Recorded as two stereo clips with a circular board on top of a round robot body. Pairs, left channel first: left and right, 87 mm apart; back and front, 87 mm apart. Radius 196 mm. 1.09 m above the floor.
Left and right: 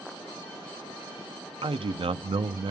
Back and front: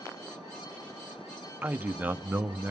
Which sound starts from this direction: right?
A man speaking, at 1.6 s.